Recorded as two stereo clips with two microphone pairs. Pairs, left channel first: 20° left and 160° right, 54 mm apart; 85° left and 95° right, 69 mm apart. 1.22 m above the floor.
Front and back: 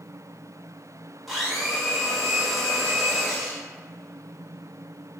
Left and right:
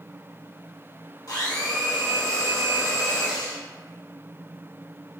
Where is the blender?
115° left, 1.0 m.